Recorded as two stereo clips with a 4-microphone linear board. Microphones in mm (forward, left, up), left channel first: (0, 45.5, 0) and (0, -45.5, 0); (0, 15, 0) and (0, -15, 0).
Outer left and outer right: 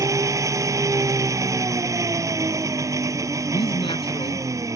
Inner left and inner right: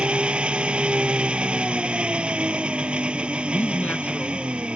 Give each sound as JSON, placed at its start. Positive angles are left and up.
{"t": 0.0, "sound": "an engine running", "side_deg": -35}
{"t": 3.5, "sound": "a man speaking", "side_deg": 75}